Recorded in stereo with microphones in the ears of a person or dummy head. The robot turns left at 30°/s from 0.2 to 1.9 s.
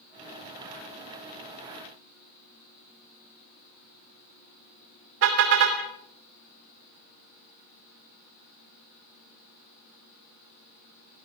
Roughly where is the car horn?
Right.